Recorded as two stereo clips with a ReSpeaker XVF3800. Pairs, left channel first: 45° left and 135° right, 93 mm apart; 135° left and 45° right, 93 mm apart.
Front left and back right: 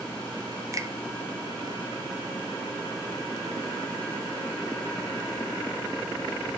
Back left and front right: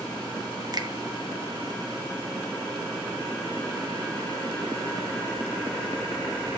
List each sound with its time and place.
0.7 s a finger snap: 85° right, 0.7 m